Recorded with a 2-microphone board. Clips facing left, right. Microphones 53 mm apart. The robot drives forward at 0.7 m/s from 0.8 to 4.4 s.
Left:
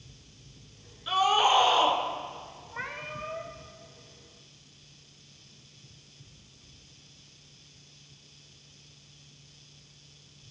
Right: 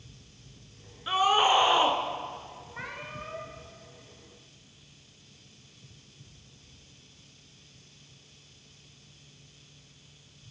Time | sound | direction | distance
1.1 | a scream | 20° right (ahead or behind) | 1.2 m
2.7 | a cat meowing | 15° left (ahead or behind) | 1.8 m